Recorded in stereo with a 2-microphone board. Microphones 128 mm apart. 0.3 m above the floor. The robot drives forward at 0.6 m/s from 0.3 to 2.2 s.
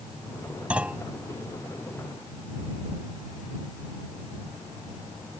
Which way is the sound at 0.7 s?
10° right (ahead or behind).